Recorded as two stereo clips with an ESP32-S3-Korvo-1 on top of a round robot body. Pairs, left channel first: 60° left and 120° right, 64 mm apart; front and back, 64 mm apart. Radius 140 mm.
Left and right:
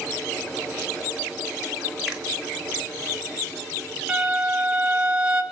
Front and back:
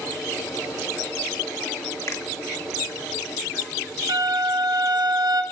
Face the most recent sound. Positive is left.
turn(degrees=160)